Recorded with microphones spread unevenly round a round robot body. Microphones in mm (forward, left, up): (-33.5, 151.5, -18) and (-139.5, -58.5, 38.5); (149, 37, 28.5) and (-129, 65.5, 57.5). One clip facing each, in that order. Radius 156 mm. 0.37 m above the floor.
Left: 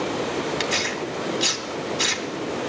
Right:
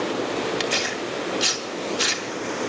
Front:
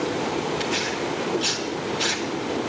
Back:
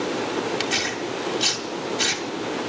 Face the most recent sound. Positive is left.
turn(degrees=160)